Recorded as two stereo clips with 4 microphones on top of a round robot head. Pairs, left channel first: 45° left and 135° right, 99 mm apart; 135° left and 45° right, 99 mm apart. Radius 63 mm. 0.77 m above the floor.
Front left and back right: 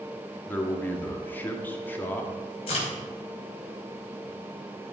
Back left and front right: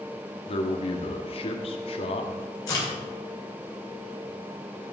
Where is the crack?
75° left, 4.5 m.